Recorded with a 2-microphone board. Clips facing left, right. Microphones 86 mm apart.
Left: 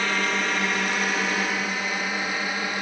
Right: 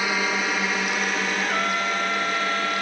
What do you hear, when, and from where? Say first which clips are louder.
0.0 s a drone: right 1 dB; 5° right (ahead or behind); by 2.8 s 10° left (ahead or behind)
1.4 s a trumpet: right 3 dB; 85° right